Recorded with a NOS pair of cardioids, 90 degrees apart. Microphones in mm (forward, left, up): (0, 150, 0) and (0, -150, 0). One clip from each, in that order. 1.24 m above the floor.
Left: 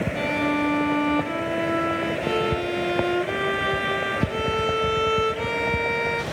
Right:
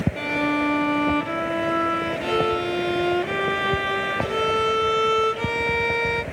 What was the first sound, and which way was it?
A violin, 15° right.